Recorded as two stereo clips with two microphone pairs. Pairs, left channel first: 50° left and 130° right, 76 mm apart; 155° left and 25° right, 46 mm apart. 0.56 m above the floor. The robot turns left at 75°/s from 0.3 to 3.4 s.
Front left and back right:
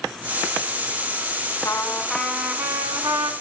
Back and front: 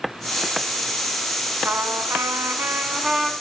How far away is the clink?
No clink in this recording.